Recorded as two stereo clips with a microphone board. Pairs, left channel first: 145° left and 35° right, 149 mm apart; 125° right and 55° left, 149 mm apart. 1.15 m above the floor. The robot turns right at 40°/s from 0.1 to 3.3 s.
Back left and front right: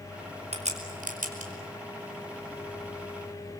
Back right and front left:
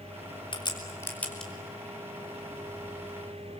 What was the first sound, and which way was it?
A crack, 75° right.